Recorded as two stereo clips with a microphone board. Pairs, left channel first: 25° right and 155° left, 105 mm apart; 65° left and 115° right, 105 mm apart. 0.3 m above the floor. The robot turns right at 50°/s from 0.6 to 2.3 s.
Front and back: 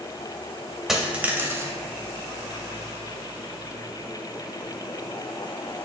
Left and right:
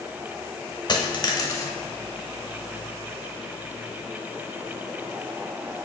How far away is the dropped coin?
About 0.5 m.